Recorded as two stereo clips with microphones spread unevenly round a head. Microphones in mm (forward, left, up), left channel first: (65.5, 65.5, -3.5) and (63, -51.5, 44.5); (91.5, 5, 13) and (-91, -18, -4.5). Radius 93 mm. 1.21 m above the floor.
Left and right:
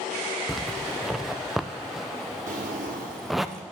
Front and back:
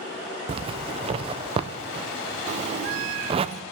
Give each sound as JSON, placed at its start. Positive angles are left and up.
{"t": 0.5, "sound": "a zipper", "azimuth_deg": 155, "distance_m": 0.6}
{"t": 2.5, "sound": "a drawer", "azimuth_deg": -115, "distance_m": 2.0}